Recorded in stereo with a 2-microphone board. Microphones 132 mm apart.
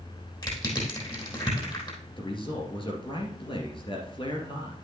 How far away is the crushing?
About 3.5 m.